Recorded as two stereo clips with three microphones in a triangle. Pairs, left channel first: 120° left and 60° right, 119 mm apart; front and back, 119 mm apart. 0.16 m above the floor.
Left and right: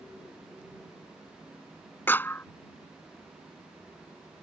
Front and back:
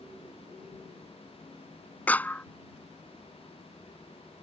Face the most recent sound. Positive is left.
turn(degrees=65)